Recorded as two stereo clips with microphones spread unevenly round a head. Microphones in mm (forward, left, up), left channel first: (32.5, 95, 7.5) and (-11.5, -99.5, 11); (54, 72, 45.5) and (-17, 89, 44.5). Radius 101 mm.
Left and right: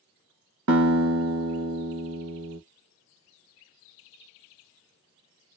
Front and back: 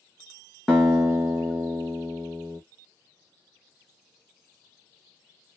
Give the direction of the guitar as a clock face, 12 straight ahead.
3 o'clock.